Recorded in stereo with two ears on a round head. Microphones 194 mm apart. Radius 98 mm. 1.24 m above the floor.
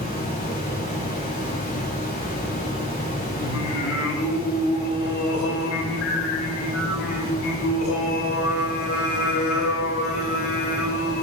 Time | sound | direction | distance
0.0 | running water | 40° left (ahead or behind) | 3.5 m
3.4 | singing | 65° left (ahead or behind) | 2.5 m